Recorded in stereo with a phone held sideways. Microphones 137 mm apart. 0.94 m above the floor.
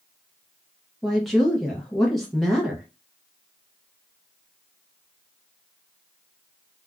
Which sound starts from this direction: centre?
A woman speaking, at 1.0 s.